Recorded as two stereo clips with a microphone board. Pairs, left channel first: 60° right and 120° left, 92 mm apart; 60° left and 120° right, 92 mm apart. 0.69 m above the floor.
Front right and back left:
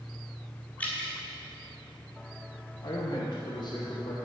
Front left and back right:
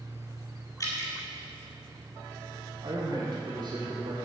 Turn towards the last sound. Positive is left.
turn(degrees=-95)